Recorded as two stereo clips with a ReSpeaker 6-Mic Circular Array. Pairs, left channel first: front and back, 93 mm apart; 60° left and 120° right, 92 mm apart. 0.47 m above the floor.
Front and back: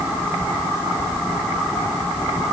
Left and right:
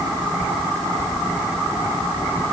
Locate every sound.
Only background noise.